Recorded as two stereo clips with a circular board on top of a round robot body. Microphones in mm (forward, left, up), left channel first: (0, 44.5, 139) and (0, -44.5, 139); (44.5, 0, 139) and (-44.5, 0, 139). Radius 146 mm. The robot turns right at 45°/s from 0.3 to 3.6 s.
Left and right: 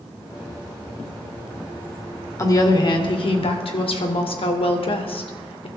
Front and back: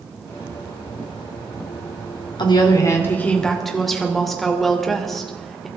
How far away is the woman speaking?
About 2.5 m.